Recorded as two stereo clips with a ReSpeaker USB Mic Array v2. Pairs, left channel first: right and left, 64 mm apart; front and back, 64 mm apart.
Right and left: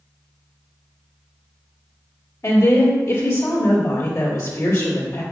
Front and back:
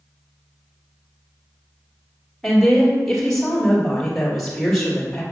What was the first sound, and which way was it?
A woman speaking, 85° right.